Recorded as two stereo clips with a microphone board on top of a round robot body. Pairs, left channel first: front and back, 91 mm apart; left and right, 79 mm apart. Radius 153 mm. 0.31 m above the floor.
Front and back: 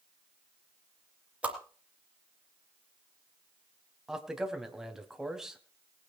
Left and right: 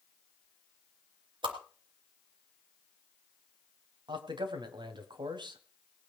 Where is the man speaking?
95° right, 3.5 m.